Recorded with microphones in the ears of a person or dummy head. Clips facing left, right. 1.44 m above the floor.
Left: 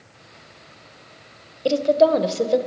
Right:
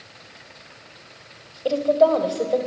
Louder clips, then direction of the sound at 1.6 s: Left 1 dB; 25° left (ahead or behind).